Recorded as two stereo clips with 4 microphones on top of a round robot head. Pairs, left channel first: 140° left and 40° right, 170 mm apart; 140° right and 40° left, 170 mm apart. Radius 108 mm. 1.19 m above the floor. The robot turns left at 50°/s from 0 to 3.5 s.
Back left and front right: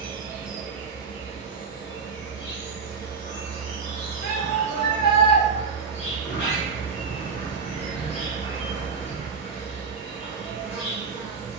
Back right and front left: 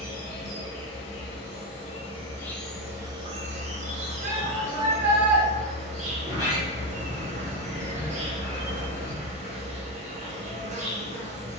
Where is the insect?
100° right, 0.7 m; by 11.6 s 85° left, 0.7 m.